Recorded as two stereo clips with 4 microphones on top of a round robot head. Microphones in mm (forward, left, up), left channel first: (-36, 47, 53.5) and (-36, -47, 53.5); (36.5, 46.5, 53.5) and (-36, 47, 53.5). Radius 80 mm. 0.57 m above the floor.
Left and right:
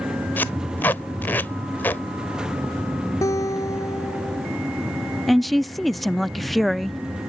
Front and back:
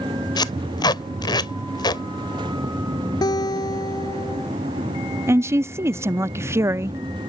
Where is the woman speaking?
Straight behind.